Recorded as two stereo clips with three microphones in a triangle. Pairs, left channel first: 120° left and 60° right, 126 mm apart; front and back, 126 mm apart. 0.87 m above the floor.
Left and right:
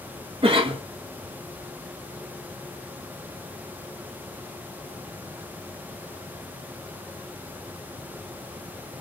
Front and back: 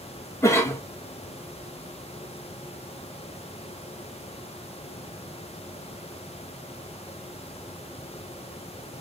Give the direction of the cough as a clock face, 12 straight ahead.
2 o'clock.